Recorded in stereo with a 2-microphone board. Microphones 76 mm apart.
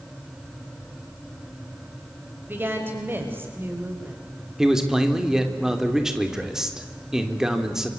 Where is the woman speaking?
25° right (ahead or behind), 5.5 m; by 4.2 s 30° right (ahead or behind), 4 m.